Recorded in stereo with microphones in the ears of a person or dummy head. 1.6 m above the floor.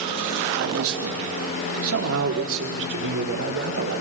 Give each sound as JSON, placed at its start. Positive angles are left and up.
{"t": 0.5, "sound": "a man speaking", "side_deg": -65, "distance_m": 2.0}